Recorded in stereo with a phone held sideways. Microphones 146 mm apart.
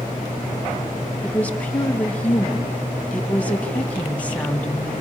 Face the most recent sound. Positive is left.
turn(degrees=10)  # may be behind; listen again after turning